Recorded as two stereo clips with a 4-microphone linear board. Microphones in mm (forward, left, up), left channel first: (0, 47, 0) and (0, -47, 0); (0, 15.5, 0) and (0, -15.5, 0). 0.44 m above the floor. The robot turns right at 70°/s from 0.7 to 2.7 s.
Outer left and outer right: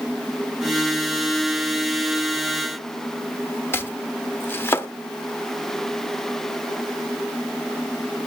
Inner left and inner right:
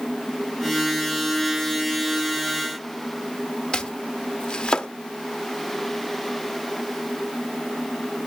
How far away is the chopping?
About 0.6 m.